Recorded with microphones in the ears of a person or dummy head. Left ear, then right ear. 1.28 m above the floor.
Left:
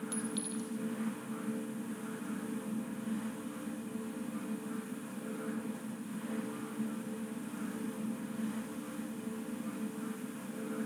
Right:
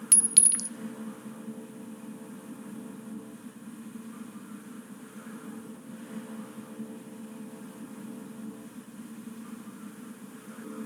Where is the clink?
65° right (ahead or behind), 0.9 m.